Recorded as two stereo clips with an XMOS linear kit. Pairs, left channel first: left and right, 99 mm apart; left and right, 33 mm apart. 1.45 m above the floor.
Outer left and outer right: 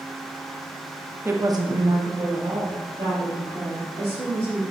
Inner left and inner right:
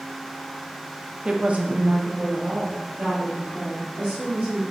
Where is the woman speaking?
20° right (ahead or behind), 0.5 m; by 4.6 s 85° right, 2.5 m.